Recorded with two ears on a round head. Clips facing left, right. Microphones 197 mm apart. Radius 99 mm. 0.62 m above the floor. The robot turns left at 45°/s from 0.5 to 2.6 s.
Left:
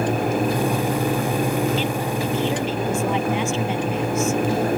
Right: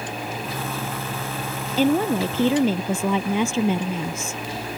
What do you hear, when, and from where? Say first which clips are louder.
1.8 s a woman speaking: right 5 dB; 35° right; by 4.4 s 75° right